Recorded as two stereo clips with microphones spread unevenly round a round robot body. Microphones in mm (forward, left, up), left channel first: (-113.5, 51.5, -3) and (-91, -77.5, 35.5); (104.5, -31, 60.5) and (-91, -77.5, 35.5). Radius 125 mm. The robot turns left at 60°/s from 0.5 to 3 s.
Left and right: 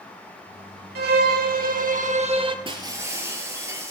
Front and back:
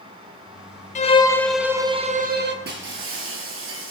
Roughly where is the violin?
Ahead right.